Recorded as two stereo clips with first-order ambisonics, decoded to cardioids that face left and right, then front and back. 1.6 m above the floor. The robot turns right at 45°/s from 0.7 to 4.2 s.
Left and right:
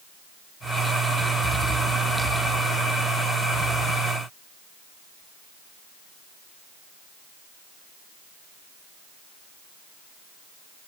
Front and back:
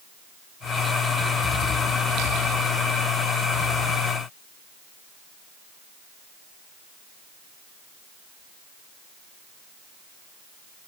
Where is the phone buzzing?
No phone buzzing in this recording.